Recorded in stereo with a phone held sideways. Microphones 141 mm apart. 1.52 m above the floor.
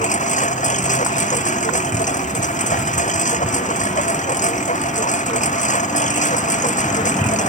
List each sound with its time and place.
0.0 s a lawn mower: 60° left (ahead or behind)